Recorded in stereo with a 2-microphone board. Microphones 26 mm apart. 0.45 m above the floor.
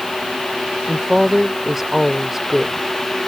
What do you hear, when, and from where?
0.9 s a woman speaking: 15° right (ahead or behind)